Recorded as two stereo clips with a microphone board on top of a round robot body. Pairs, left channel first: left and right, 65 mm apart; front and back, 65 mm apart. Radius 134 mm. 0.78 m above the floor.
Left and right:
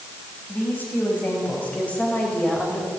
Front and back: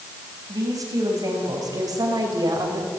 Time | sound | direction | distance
0.5 | a woman speaking | 150° left | 6.5 m